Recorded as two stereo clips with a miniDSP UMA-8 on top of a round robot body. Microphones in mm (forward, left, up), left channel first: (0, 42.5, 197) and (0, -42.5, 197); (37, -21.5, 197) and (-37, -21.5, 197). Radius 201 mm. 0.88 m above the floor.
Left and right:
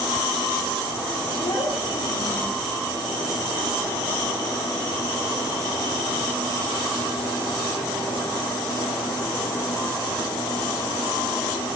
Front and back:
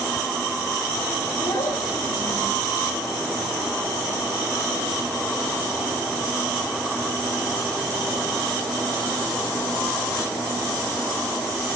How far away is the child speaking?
About 6 m.